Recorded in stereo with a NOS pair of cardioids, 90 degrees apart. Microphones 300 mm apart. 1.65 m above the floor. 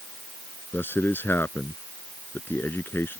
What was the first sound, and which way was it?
A man speaking, 5° left.